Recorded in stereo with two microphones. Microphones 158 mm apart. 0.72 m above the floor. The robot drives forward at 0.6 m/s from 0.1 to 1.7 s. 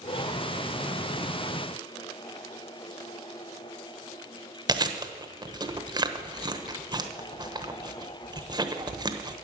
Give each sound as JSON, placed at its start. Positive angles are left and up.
{"t": 4.7, "sound": "chewing", "side_deg": -25, "distance_m": 1.0}